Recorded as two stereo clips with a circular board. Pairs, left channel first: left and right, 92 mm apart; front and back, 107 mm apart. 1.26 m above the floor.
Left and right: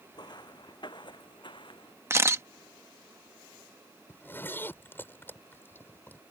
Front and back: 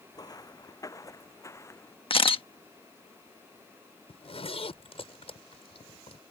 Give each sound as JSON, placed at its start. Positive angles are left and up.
{"t": 0.1, "sound": "footsteps", "azimuth_deg": 50}
{"t": 2.1, "sound": "a camera shutter", "azimuth_deg": -30}
{"t": 4.1, "sound": "a zipper", "azimuth_deg": 20}